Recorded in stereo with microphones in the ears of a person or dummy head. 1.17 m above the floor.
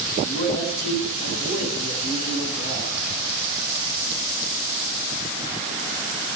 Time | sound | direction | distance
0.2 | a man speaking | 65° left (ahead or behind) | 7.5 m